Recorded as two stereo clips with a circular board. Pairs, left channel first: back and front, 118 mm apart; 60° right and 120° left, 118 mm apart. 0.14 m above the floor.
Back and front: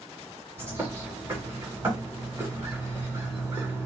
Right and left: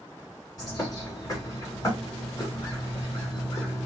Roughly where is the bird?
Ahead right.